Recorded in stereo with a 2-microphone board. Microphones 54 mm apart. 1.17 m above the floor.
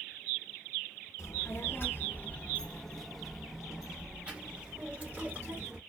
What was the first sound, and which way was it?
A child speaking, 60° left (ahead or behind).